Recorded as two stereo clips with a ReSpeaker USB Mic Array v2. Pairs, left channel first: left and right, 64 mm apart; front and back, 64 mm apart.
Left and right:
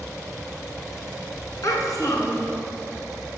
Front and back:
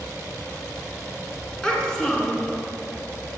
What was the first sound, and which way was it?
A child speaking, 80° left.